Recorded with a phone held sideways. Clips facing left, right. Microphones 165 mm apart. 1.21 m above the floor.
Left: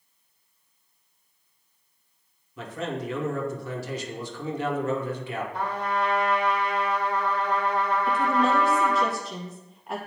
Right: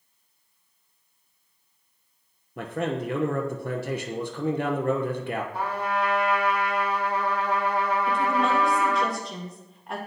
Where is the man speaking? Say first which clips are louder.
Right 3 dB; 60° right (ahead or behind), 0.7 m.